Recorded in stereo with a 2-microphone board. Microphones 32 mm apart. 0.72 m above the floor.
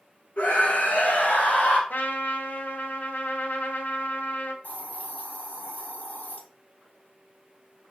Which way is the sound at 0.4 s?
45° left (ahead or behind).